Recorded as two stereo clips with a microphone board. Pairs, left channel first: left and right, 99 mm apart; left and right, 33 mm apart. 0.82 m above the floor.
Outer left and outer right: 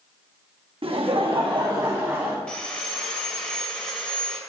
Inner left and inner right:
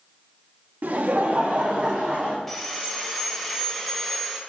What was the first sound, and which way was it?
Laughter, 65° right (ahead or behind).